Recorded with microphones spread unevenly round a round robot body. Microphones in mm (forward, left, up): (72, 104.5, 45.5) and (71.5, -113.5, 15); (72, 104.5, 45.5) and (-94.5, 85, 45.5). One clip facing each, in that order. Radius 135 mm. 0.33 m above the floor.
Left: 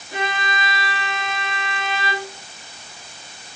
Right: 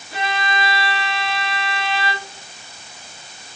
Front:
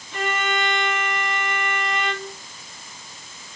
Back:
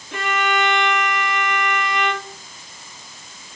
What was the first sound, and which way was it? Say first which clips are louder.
A violin: right 2 dB, back 3 dB; 165° left.